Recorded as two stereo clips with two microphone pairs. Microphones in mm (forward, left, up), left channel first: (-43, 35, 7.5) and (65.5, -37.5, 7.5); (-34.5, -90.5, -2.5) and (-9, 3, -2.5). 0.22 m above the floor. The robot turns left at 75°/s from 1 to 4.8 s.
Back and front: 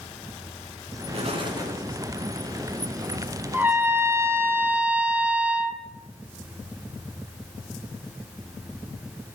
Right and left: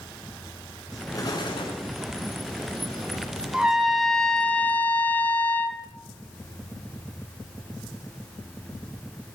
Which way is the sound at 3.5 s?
5° left.